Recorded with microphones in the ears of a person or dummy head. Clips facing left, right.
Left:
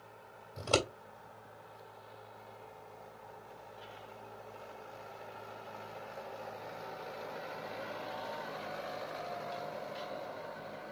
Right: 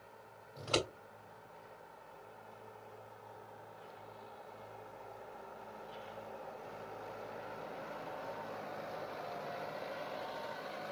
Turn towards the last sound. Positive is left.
turn(degrees=55)  # may be behind; listen again after turning